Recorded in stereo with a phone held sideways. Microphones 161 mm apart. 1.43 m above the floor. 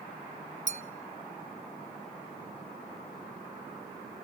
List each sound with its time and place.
0.7 s a clink: 45° right (ahead or behind), 0.7 m